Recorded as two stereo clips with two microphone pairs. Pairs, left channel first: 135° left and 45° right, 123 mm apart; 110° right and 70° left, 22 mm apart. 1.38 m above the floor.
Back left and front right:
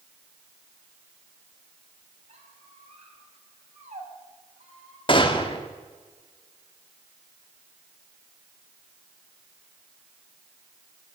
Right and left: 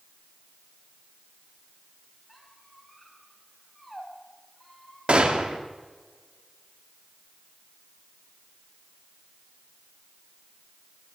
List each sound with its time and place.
2.3 s a squeak: 25° right, 4.5 m
5.1 s a gunshot: 90° left, 1.5 m